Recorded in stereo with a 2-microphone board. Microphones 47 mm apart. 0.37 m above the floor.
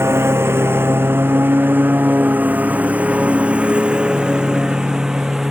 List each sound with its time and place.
0.0 s a lawn mower: 60° right (ahead or behind); by 5.5 s 5° right (ahead or behind)